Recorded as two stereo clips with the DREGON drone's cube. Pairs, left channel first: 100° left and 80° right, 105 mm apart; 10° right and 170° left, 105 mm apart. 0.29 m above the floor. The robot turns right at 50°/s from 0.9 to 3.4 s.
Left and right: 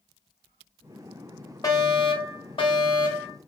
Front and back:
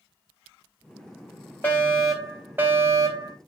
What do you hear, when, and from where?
1.6 s a fire alarm: 60° left, 3.5 m; by 3.4 s 145° left, 3.5 m